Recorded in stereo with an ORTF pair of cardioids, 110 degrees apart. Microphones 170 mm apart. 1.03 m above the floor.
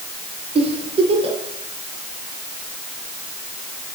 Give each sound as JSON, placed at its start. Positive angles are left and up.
{"t": 0.6, "sound": "a giggle", "azimuth_deg": -35, "distance_m": 6.5}